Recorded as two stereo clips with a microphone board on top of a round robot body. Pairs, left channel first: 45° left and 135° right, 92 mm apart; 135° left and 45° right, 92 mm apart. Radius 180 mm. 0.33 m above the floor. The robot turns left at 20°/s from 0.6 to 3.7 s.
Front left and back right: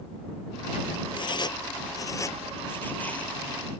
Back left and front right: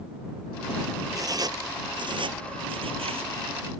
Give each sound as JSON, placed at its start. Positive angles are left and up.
{"t": 1.1, "sound": "writing", "azimuth_deg": 10}